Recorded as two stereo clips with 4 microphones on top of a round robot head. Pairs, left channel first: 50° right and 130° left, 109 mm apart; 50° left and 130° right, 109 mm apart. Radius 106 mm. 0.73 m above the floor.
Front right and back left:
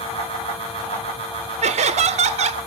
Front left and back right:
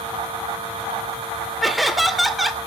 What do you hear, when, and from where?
1.6 s laughter: 140° left, 2.5 m